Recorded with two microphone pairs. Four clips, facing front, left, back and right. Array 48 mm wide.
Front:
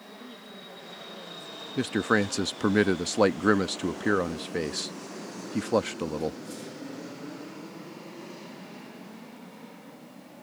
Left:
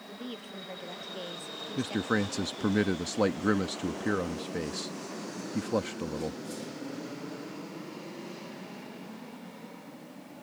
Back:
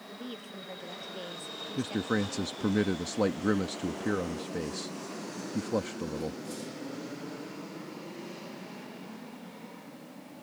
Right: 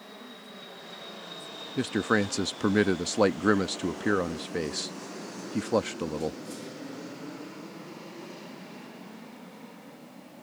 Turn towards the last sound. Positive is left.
turn(degrees=-20)